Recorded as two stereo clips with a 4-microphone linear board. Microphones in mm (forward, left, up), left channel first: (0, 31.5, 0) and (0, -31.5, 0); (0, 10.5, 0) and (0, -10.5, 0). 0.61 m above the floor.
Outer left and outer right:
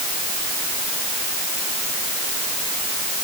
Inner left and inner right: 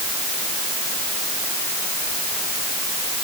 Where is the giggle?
No giggle in this recording.